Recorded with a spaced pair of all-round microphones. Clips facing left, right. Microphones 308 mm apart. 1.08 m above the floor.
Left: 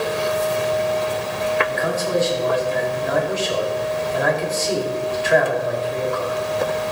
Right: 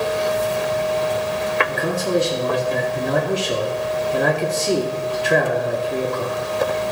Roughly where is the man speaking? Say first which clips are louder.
Right 1 dB; right.